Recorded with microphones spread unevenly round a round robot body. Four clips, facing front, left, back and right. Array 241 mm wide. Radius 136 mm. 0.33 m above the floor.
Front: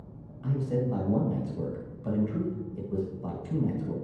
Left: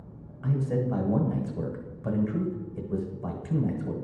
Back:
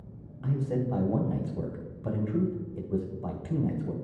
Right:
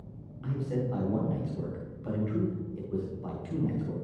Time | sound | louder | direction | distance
0.4 | a man speaking | left 4 dB, front 1 dB | 125° left | 1.6 m